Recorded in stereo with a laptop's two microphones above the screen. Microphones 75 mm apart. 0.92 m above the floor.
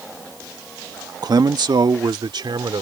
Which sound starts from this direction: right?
A man speaking, at 1.2 s.